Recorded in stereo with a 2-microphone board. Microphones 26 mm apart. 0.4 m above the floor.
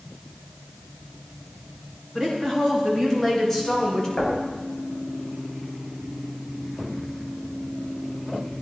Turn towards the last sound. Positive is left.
turn(degrees=50)  # may be behind; listen again after turning